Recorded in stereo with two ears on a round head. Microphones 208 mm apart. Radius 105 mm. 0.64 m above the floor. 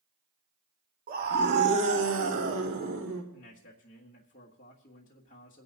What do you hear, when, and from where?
1.1 s a scream: 40° right (ahead or behind), 1.4 m; by 3.2 s 65° right (ahead or behind), 2.5 m
3.3 s a man speaking: 35° left (ahead or behind), 1.6 m